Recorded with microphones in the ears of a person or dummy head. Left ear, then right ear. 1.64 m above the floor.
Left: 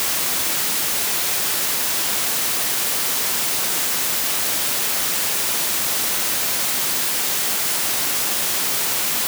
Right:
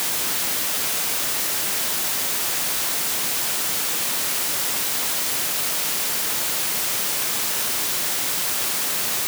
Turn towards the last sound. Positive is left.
No sound to turn to.